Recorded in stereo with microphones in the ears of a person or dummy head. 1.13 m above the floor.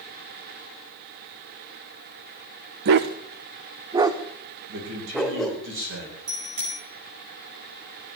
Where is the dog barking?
55° right (ahead or behind), 1.0 m; by 5.6 s centre (ahead or behind), 2 m.